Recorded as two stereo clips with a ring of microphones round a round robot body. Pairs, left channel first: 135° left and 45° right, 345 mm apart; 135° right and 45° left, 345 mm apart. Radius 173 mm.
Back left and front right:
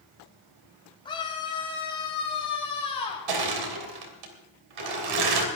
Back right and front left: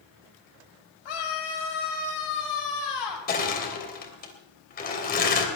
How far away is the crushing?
About 3 m.